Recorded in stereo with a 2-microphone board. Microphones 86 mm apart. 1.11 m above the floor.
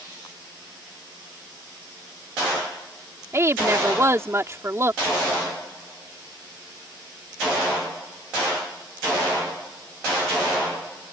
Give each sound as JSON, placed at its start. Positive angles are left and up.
{"t": 3.3, "sound": "a woman speaking", "side_deg": -35}